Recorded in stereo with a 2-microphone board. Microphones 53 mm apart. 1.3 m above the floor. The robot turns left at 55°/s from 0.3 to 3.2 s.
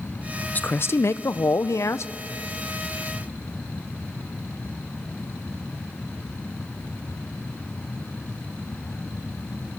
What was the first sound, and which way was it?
A man speaking, 145° left.